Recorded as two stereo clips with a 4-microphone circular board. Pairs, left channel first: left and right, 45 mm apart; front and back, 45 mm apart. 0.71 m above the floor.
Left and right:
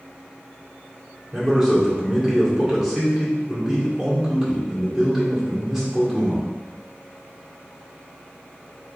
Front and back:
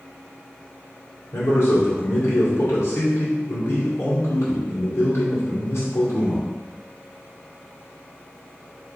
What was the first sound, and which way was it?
A man speaking, 5° left.